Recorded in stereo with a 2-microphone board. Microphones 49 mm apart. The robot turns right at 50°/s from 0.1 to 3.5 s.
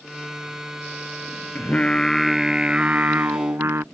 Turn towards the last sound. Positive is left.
turn(degrees=-115)